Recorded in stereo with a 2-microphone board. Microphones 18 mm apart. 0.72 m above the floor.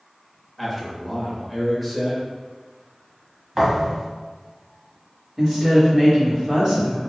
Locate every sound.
0.6 s a man speaking: 10° right (ahead or behind), 1.1 m
3.5 s a thud: 20° right (ahead or behind), 1.5 m
5.4 s a woman speaking: 15° right (ahead or behind), 1.8 m